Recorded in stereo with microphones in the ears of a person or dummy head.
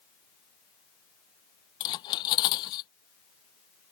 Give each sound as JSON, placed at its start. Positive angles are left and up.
{"t": 1.8, "sound": "cutlery clinking", "side_deg": 25}